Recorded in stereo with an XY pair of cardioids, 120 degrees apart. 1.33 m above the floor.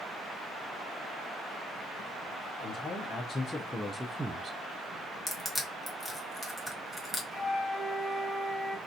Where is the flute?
Straight ahead, 1.8 m.